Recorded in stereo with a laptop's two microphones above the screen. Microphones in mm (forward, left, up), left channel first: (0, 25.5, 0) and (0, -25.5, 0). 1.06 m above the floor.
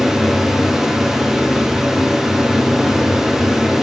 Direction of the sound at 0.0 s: 10° right (ahead or behind).